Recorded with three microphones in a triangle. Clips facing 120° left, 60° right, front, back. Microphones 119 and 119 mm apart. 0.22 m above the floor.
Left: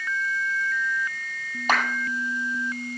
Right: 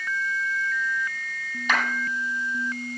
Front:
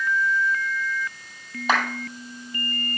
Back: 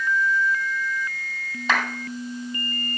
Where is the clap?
75° left, 7.5 m.